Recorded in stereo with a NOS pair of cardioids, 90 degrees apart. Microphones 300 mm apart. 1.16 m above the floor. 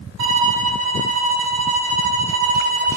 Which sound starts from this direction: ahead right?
A violin, at 0.2 s.